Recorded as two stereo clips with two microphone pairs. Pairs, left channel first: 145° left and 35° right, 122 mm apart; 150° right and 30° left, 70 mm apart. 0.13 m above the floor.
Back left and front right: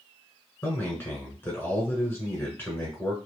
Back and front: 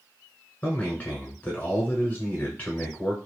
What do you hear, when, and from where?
0.6 s a man speaking: straight behind, 1.3 m